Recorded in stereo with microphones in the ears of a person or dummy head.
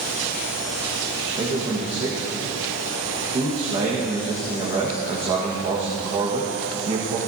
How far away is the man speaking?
About 1.5 m.